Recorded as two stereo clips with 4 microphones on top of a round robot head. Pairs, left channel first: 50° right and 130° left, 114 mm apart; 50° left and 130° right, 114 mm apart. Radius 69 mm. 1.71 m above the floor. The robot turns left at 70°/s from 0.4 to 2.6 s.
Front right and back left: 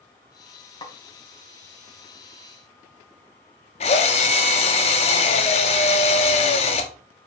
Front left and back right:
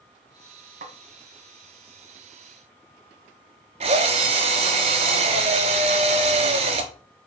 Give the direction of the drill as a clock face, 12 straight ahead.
3 o'clock.